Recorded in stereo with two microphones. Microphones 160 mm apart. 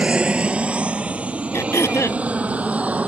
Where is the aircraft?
5° right (ahead or behind); by 3.1 s 10° right (ahead or behind).